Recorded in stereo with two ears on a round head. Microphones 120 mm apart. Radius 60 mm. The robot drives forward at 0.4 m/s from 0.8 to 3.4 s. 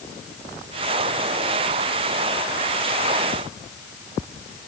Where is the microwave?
I don't hear a microwave.